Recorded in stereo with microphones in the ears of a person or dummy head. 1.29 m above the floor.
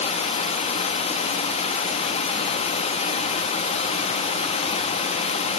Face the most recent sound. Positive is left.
turn(degrees=30)  # may be behind; listen again after turning